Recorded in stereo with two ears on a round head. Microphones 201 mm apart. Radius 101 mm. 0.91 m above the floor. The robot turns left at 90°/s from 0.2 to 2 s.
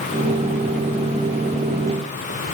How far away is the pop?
No pop in this recording.